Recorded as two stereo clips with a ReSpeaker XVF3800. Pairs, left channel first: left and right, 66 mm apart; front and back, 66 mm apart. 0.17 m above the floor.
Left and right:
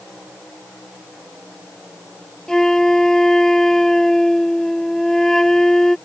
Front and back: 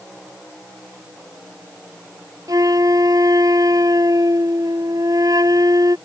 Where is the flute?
170° left.